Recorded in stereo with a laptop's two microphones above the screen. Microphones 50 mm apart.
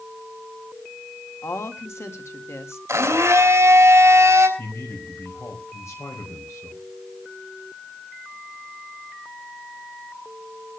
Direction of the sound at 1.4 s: 65° left (ahead or behind).